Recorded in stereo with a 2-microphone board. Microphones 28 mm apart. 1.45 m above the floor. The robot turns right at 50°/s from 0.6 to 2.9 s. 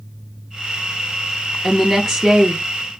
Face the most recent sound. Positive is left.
turn(degrees=-135)